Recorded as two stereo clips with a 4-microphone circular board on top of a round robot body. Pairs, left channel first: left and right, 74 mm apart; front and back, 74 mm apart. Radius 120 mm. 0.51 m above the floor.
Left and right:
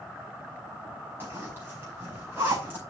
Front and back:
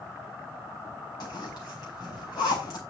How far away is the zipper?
About 5.5 m.